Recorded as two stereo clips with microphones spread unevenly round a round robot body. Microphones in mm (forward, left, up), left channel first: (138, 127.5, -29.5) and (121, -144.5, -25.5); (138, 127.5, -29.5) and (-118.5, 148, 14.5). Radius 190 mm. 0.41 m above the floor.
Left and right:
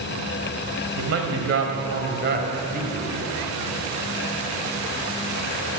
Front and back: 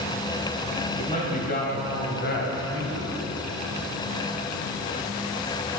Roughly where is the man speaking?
Right.